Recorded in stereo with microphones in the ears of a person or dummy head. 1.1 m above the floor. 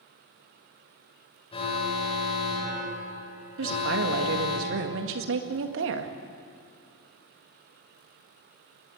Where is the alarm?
30° left (ahead or behind), 6.5 m.